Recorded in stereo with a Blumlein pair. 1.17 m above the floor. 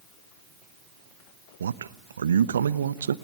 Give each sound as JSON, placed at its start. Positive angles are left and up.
{"t": 1.6, "sound": "a man speaking", "azimuth_deg": -70, "distance_m": 0.9}